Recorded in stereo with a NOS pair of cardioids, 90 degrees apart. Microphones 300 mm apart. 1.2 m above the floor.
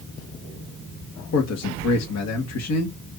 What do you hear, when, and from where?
1.3 s a man speaking: 60° left, 1.8 m